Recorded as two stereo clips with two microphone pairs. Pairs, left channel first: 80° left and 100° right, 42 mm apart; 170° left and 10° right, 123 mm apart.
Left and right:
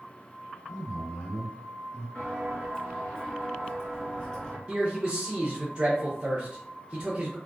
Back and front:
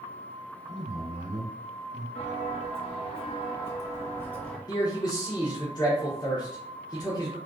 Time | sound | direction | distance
0.7 | a man speaking | 155° left | 1.8 m
2.1 | footsteps | 150° left | 1.8 m
4.7 | a man speaking | 150° right | 0.5 m